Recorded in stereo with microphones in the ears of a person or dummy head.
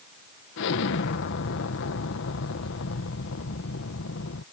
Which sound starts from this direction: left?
An explosion, at 0.6 s.